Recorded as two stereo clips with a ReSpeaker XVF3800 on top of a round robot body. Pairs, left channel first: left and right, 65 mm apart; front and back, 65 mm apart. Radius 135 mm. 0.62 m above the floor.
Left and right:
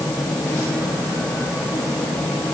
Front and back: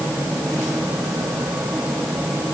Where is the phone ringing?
No phone ringing in this recording.